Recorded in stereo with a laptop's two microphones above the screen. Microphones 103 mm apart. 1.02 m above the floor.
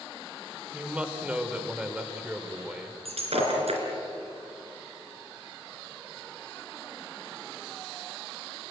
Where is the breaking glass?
75° right (ahead or behind), 3.5 m.